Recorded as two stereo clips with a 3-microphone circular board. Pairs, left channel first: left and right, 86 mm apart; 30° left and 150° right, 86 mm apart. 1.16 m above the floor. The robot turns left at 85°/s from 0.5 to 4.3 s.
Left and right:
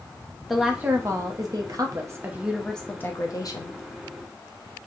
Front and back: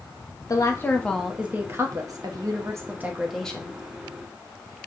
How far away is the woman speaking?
About 0.8 m.